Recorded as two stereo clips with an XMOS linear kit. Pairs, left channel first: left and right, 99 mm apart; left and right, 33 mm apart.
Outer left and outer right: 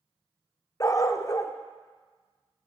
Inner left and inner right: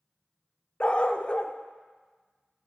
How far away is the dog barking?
About 0.5 m.